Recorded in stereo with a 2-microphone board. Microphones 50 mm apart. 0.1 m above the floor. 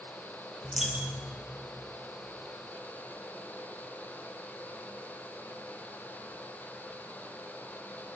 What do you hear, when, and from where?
0.6 s a dropped coin: 5° right (ahead or behind), 1.2 m